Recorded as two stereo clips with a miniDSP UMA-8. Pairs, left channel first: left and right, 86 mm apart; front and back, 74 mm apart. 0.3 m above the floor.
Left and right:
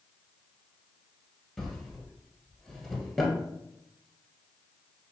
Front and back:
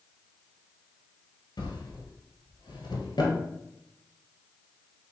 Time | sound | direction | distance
1.6 | a drawer | 5° left | 1.4 m